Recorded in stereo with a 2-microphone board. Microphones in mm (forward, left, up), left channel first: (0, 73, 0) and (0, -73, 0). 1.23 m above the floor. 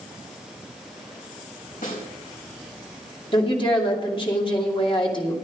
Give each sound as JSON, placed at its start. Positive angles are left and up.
{"t": 1.8, "sound": "a snare drum", "side_deg": 65, "distance_m": 4.5}
{"t": 3.3, "sound": "a woman speaking", "side_deg": 35, "distance_m": 2.5}